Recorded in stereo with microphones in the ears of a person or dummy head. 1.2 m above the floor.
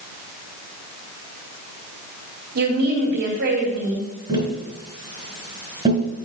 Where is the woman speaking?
50° right (ahead or behind), 3.5 m.